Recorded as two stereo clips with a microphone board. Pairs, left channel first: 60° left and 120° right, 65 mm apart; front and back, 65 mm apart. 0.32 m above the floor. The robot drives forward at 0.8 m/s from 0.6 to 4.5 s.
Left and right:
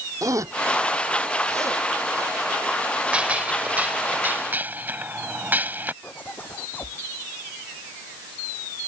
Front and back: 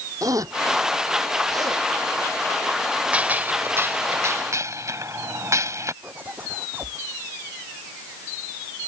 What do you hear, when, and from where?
0.2 s a zipper: 155° right; by 1.9 s 160° right
3.1 s a gunshot: 155° right; by 5.9 s 175° right
6.0 s a zipper: 120° left